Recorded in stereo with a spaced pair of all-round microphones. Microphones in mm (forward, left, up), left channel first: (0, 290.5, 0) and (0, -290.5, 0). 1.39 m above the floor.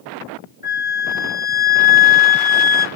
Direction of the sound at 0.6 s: 70° right (ahead or behind).